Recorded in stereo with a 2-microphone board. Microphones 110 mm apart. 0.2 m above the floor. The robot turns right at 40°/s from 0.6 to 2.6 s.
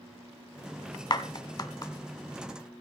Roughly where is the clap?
Left.